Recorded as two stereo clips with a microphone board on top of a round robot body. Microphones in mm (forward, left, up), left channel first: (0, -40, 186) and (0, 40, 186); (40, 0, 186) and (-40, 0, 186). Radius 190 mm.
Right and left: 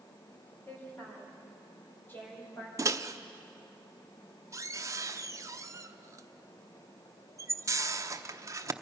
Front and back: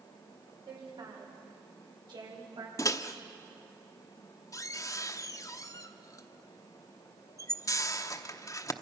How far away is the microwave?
About 1.0 m.